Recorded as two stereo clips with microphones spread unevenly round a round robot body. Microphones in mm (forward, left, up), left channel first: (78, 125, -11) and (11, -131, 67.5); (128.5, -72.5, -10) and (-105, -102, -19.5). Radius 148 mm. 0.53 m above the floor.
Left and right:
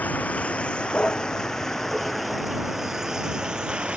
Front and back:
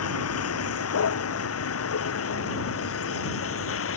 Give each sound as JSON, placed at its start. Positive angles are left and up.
{"t": 0.0, "sound": "a vehicle", "azimuth_deg": -10}